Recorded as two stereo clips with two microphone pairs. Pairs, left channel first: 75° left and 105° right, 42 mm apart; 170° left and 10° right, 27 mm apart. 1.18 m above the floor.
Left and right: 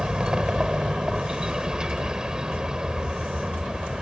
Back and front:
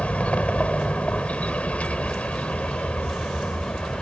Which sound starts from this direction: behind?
A vehicle, at 0.0 s.